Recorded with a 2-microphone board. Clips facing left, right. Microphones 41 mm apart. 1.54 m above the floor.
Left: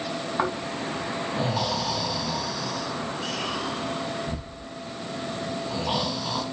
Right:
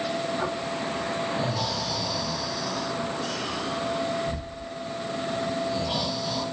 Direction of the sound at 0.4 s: 80° left.